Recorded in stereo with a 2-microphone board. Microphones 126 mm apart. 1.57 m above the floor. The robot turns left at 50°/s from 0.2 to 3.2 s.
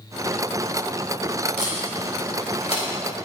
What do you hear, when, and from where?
1.6 s tape being pulled: 65° left (ahead or behind), 6 m; by 2.8 s 50° left (ahead or behind), 6 m